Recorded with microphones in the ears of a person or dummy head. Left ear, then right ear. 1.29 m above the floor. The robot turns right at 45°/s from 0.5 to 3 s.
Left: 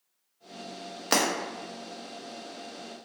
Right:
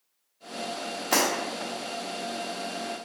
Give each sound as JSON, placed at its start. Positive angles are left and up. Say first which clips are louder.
{"t": 1.1, "sound": "breaking glass", "louder": "right 1 dB", "side_deg": 40, "distance_m": 0.9}